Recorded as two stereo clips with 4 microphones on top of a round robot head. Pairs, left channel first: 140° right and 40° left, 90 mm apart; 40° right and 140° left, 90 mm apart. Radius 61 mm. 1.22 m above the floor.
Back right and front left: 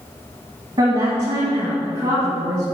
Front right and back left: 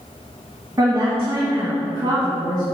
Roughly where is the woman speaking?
Left.